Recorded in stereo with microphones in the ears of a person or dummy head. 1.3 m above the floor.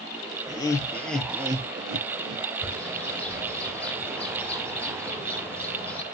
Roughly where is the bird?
Centre.